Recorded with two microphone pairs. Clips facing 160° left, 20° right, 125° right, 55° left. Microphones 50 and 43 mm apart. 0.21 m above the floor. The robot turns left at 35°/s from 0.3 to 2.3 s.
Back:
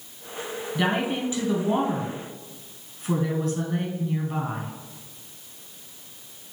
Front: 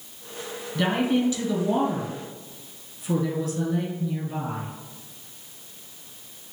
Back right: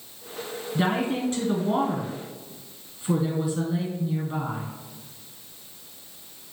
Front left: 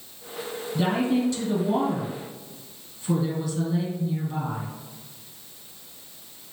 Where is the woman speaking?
135° right, 1.3 m; by 4.7 s 170° left, 1.3 m.